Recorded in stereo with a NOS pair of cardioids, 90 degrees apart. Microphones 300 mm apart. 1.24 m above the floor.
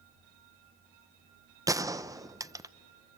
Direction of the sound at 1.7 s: 10° right.